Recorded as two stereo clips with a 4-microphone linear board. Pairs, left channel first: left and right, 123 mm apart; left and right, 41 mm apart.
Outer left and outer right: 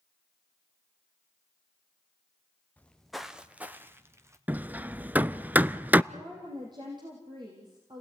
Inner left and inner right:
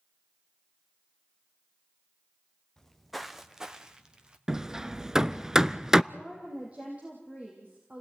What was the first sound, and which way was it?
Footsteps, 10° left (ahead or behind).